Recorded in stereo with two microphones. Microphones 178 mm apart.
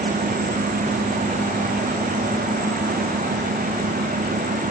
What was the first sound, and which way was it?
Only background noise.